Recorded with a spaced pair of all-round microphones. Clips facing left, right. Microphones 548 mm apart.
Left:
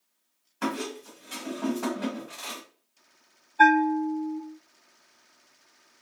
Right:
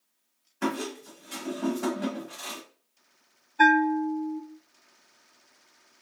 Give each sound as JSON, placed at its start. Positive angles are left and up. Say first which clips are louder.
{"t": 0.6, "sound": "a squeak", "louder": "right 1 dB", "side_deg": 20, "distance_m": 1.1}
{"t": 3.6, "sound": "a bell", "louder": "left 1 dB", "side_deg": -40, "distance_m": 0.6}